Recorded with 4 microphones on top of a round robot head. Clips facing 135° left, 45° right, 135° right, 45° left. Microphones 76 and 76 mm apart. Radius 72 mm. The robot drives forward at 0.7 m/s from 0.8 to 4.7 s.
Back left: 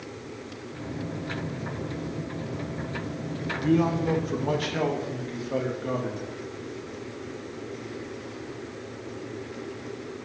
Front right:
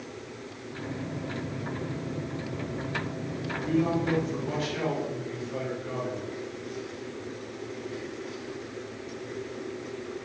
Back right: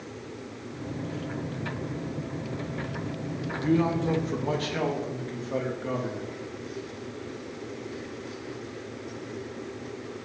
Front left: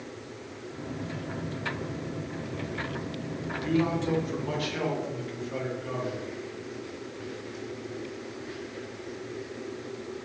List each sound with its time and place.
3.5 s a man speaking: 160° left, 1.4 m; by 6.3 s 170° left, 2 m